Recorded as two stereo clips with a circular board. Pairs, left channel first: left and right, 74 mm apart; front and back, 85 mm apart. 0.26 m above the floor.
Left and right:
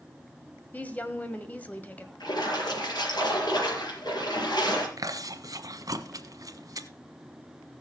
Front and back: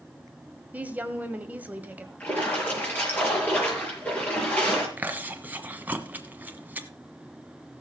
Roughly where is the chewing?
Behind right.